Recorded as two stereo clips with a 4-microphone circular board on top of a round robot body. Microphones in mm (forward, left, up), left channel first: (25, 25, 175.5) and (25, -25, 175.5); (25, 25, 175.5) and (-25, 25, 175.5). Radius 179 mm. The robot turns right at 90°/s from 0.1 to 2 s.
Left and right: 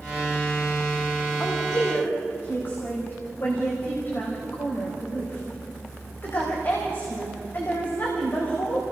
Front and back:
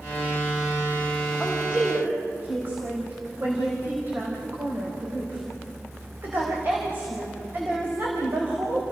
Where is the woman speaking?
80° left, 4 m; by 8.8 s 135° left, 4 m.